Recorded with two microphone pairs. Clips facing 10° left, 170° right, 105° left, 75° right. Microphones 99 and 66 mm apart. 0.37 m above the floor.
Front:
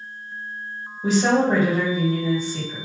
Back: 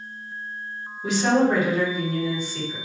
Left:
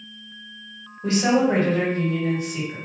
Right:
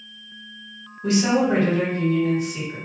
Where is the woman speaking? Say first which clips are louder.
Front 1 dB, even; 55° left, 2 m.